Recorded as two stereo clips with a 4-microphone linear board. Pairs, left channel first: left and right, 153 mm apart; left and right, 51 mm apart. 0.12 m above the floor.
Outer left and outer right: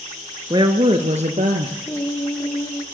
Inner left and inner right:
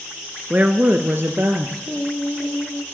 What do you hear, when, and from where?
0.5 s a woman speaking: 30° right (ahead or behind), 1.4 m; by 1.8 s 60° right (ahead or behind), 2 m
1.9 s singing: 20° left (ahead or behind), 2.5 m